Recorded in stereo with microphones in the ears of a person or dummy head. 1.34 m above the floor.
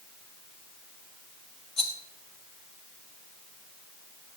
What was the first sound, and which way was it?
A rattle, 35° left (ahead or behind).